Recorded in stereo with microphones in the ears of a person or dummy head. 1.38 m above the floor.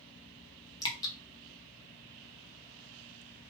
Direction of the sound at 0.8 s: 20° left (ahead or behind).